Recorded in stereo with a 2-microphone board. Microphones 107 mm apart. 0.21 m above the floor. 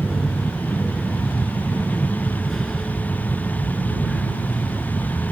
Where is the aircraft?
Centre (ahead or behind).